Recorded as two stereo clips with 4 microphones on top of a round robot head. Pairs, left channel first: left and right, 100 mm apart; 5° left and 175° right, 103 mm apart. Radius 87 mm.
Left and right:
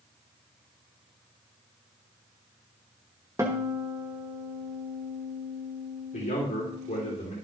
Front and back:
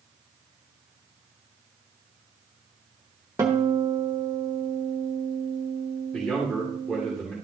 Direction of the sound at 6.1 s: 90° left.